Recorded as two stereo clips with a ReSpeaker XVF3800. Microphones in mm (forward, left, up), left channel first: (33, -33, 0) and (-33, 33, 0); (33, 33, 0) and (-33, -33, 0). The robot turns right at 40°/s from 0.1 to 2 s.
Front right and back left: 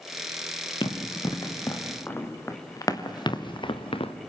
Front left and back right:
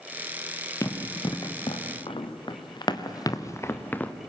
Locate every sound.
0.8 s running footsteps: 15° right, 3.5 m; by 4.1 s 30° right, 1.8 m